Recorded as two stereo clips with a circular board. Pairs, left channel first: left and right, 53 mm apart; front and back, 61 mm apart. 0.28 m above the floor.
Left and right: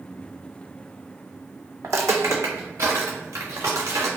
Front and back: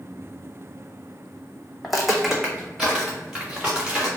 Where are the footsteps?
85° right, 0.5 m; by 4.1 s 105° right, 1.7 m.